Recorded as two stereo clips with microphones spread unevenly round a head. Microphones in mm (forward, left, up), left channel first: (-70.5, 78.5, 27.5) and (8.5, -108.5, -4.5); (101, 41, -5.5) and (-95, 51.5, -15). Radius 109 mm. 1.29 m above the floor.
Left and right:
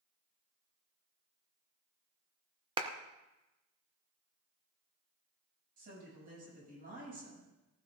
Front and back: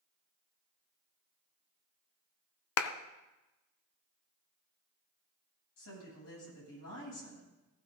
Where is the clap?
Straight ahead, 0.8 m.